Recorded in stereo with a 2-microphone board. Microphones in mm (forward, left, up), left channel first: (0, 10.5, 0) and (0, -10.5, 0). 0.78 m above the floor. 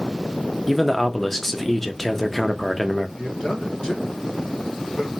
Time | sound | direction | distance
0.7 | a man speaking | 10° left (ahead or behind) | 0.7 m
3.2 | a man speaking | 40° left (ahead or behind) | 1.3 m